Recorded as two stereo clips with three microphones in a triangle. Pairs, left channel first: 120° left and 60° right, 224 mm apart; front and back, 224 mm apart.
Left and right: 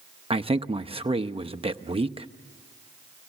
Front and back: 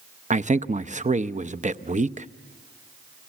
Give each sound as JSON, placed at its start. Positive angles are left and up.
{"t": 0.3, "sound": "a man speaking", "azimuth_deg": -120, "distance_m": 0.7}